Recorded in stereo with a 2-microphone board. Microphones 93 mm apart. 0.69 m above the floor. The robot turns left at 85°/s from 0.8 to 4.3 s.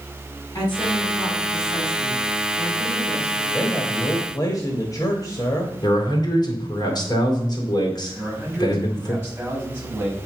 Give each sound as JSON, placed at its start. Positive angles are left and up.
{"t": 0.6, "sound": "a woman speaking", "azimuth_deg": 125, "distance_m": 4.5}
{"t": 3.5, "sound": "a man speaking", "azimuth_deg": 165, "distance_m": 1.3}
{"t": 5.8, "sound": "a man speaking", "side_deg": 45, "distance_m": 2.5}
{"t": 8.1, "sound": "a man speaking", "side_deg": -20, "distance_m": 5.0}